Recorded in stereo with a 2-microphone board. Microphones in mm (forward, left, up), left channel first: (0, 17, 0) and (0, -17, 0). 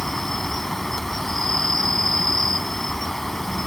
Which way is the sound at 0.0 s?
10° left (ahead or behind).